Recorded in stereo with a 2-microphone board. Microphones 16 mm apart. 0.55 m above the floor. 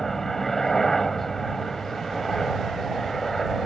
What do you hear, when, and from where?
0.0 s a helicopter: 25° left (ahead or behind)